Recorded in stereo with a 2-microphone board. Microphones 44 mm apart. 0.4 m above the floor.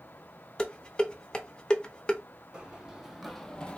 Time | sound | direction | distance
0.6 | dishes clattering | 20° left (ahead or behind) | 0.5 m
2.5 | running footsteps | 20° right (ahead or behind) | 0.9 m